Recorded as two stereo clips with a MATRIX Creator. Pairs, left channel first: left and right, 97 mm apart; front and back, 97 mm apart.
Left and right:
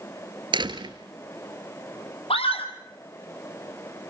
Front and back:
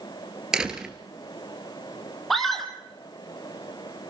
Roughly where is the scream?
Left.